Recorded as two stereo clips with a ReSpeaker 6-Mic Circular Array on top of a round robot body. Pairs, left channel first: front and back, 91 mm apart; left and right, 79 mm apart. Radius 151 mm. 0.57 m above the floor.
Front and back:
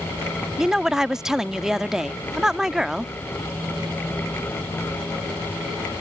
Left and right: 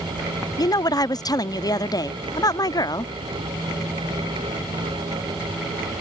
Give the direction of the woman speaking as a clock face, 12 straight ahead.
9 o'clock.